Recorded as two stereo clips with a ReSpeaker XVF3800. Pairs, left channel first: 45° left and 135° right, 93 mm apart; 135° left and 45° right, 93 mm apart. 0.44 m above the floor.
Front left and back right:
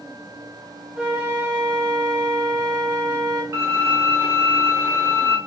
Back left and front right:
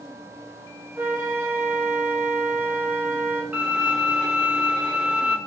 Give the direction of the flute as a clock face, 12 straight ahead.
2 o'clock.